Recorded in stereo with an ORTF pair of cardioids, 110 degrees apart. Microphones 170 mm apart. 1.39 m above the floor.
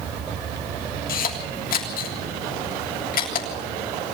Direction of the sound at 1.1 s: 55° left.